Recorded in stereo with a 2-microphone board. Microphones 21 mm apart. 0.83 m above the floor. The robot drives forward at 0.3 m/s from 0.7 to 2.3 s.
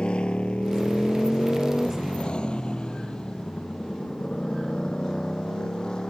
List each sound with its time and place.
0.0 s a motorcycle: 50° left (ahead or behind); by 6.1 s 35° left (ahead or behind)